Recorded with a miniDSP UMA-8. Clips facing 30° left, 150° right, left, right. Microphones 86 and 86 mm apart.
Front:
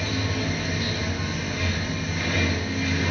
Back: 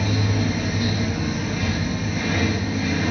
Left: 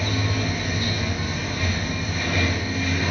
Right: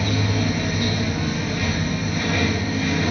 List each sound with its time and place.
0.0 s running water: 120° right, 1.0 m